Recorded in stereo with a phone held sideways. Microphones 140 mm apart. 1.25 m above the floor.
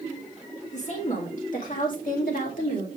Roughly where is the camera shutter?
No camera shutter in this recording.